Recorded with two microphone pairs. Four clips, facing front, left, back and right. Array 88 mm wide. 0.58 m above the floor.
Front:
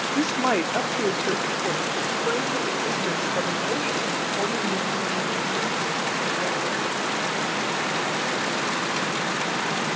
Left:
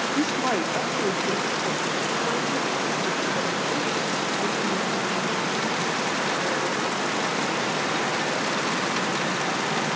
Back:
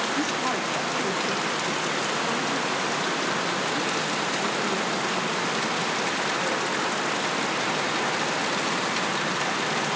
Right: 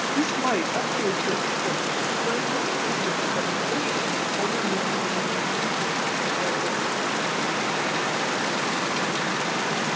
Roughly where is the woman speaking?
Ahead.